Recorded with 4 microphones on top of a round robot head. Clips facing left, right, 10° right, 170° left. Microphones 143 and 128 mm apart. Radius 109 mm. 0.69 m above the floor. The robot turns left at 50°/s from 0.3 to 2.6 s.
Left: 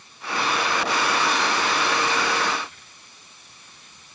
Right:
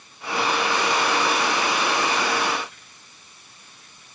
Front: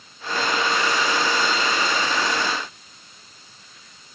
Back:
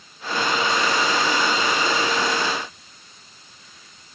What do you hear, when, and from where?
Only background noise.